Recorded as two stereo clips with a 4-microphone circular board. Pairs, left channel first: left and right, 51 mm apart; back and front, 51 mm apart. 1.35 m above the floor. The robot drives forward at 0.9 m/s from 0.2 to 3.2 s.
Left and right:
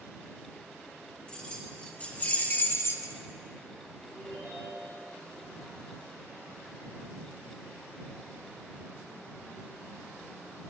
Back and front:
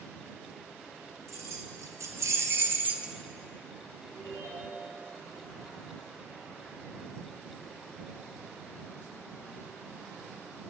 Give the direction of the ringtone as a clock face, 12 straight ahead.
6 o'clock.